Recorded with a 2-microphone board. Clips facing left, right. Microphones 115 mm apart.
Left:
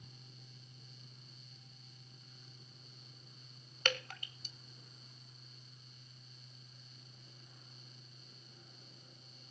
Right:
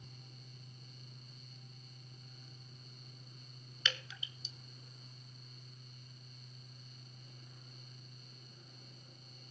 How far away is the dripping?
About 0.7 m.